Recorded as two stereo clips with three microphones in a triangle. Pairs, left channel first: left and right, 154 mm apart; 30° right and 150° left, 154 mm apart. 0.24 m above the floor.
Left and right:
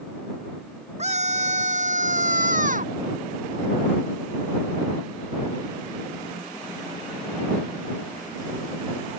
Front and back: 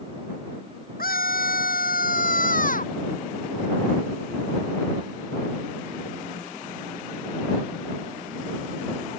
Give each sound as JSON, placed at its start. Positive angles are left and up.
{"t": 1.0, "sound": "a scream", "azimuth_deg": -45}